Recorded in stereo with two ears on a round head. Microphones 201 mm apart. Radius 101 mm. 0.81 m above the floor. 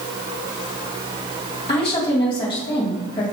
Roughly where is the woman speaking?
Left.